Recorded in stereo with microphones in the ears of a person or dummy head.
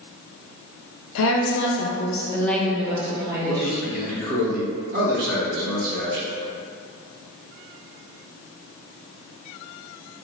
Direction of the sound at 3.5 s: 50° right (ahead or behind).